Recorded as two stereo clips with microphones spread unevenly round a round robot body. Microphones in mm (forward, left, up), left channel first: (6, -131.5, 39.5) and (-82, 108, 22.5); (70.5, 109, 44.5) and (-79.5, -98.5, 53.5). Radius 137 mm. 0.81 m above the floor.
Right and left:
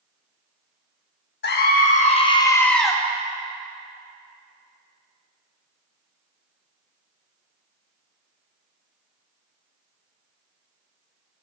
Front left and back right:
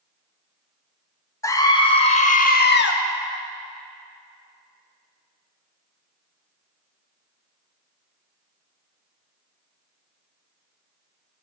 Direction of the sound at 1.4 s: 20° right.